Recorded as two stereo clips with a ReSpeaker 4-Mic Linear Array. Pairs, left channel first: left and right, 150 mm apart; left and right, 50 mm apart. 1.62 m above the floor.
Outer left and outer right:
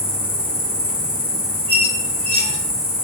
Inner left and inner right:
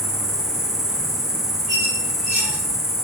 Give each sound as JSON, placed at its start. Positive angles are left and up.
{"t": 0.0, "sound": "an insect", "side_deg": -10, "distance_m": 0.7}
{"t": 1.7, "sound": "a squeak", "side_deg": 10, "distance_m": 1.8}